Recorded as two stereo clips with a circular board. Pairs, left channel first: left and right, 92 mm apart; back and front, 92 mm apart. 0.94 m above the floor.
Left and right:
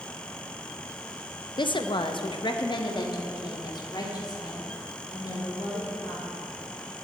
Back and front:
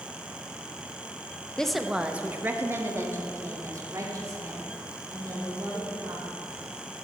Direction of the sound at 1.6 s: 100° left.